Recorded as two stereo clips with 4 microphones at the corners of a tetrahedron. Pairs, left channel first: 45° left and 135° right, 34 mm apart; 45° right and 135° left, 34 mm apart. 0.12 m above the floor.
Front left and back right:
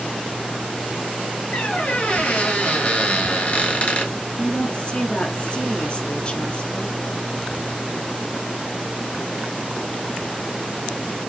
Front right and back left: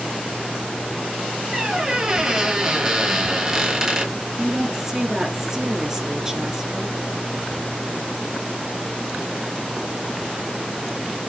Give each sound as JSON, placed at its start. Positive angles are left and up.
{"t": 1.5, "sound": "a squeak", "azimuth_deg": 70, "distance_m": 1.8}
{"t": 4.4, "sound": "a woman speaking", "azimuth_deg": 70, "distance_m": 1.3}